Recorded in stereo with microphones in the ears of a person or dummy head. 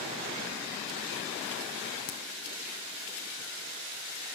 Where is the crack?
55° left (ahead or behind), 2.5 m.